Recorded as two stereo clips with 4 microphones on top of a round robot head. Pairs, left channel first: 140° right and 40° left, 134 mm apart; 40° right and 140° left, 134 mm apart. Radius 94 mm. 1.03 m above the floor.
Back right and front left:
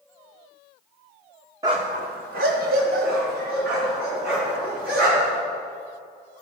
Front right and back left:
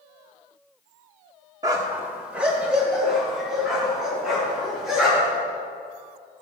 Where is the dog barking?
90° left, 0.6 m; by 5.4 s 50° left, 6 m.